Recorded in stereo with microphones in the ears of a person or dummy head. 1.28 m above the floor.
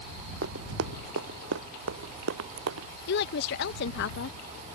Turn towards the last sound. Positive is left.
turn(degrees=60)  # may be behind; listen again after turning